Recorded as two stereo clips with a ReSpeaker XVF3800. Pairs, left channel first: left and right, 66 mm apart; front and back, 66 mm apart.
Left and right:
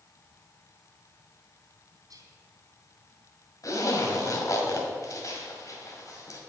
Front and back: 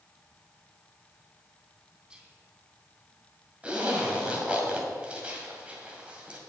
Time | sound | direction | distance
2.1 | whispering | 110° right | 3 m
3.6 | a zipper | 110° left | 2 m